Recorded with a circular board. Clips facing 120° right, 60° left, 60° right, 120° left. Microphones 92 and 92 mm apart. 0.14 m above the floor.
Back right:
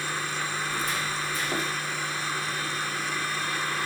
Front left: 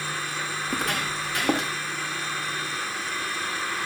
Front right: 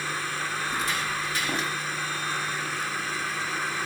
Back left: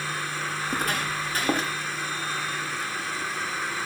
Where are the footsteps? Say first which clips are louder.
Front left 2 dB, back left 3 dB; 85° left, 4.5 m; by 1.7 s 70° left, 4 m.